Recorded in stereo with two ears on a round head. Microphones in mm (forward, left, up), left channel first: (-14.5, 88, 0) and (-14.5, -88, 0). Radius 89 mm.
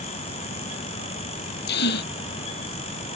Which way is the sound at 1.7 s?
55° left (ahead or behind).